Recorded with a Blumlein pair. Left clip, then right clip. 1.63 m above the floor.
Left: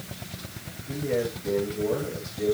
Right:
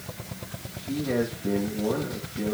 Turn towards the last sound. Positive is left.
turn(degrees=-25)